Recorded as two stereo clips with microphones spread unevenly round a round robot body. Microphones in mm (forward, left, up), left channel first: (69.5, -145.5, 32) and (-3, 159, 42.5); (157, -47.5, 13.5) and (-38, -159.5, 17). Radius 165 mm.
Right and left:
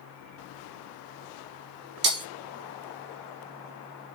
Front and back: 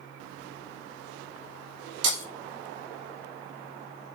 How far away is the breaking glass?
About 4 m.